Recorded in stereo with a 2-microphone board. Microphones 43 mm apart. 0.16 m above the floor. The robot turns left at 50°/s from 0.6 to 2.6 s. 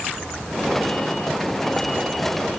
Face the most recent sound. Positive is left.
No sound to turn to.